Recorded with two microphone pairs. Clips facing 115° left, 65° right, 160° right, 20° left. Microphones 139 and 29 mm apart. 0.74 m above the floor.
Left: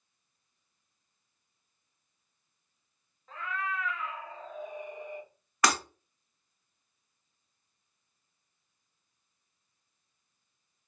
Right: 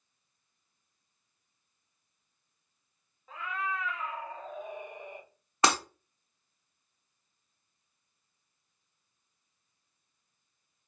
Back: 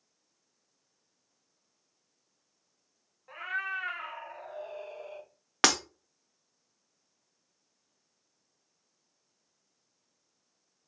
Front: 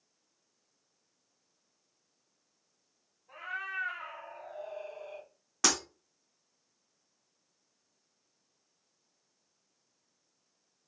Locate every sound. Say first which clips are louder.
3.3 s a cat meowing: even, back 4 dB; 150° right, 0.9 m; by 5.3 s 85° right, 1.2 m
5.6 s breaking glass: right 1 dB, back 5 dB; 130° right, 0.6 m